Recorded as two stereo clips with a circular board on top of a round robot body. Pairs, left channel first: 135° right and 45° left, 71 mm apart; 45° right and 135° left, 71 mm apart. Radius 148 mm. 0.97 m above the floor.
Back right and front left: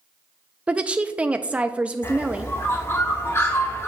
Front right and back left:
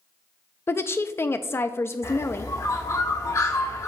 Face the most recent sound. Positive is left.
turn(degrees=-85)